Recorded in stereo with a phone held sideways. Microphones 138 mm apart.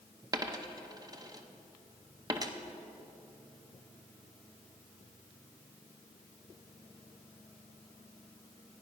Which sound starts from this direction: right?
A dropped coin, at 0.3 s.